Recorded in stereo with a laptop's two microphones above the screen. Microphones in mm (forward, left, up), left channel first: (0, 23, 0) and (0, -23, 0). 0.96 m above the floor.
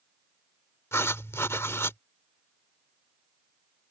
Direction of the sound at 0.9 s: 80° left.